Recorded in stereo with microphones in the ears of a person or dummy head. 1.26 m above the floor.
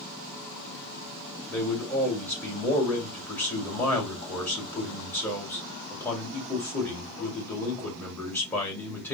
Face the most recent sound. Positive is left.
turn(degrees=10)  # may be behind; listen again after turning